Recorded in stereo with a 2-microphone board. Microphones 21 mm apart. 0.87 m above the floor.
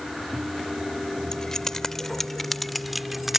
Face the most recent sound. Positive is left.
turn(degrees=-10)  # may be behind; listen again after turning